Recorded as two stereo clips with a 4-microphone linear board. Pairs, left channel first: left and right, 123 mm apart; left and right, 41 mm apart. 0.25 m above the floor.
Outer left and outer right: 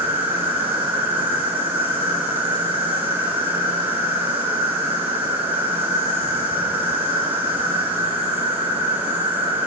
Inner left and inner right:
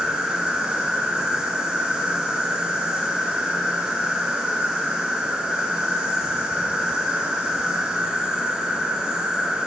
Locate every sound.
0.0 s an insect: 15° right (ahead or behind), 1.1 m